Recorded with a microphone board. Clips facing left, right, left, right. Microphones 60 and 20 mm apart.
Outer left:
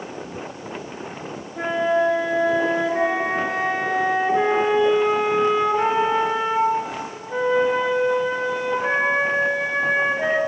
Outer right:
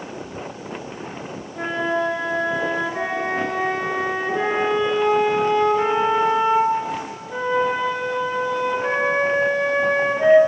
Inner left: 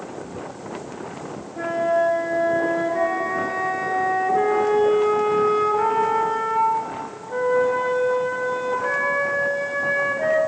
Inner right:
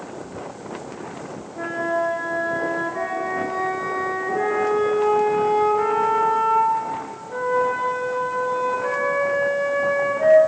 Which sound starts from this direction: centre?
A flute, at 1.6 s.